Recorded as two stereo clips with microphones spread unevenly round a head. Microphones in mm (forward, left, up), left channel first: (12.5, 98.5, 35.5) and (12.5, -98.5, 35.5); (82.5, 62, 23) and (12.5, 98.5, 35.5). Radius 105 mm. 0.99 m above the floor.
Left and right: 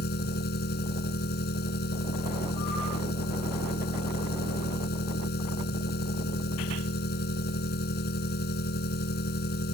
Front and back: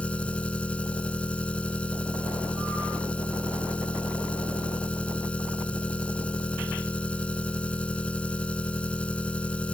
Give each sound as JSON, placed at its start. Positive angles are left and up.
{"t": 0.0, "sound": "an engine running", "azimuth_deg": 50}